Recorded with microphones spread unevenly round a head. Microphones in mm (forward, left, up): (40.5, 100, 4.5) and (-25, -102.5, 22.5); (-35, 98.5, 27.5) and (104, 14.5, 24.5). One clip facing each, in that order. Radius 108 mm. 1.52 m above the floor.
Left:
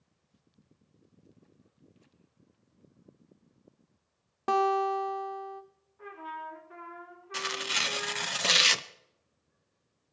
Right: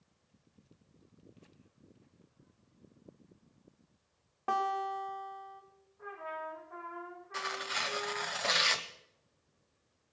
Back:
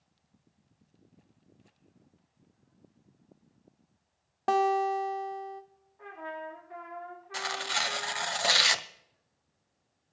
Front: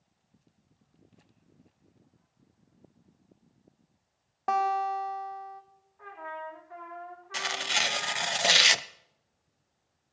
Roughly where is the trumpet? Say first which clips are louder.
Right 1 dB, back 1 dB; left.